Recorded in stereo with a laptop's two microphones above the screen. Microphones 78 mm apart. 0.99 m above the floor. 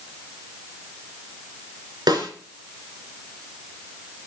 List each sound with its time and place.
2.1 s a snare drum: 75° right (ahead or behind), 3.5 m